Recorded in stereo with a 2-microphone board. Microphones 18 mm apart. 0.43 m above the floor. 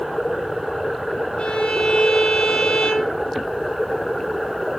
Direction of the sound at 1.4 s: 80° left.